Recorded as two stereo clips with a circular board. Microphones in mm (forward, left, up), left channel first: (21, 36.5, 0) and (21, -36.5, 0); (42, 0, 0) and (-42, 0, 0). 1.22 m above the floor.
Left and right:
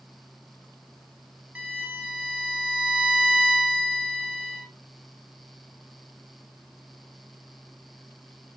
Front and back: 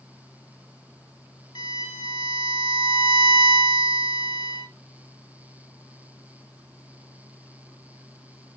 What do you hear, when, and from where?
1.6 s a violin: 20° right, 1.8 m